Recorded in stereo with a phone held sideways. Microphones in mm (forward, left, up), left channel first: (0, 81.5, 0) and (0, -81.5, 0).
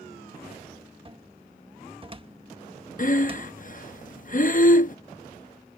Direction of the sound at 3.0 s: 55° left (ahead or behind).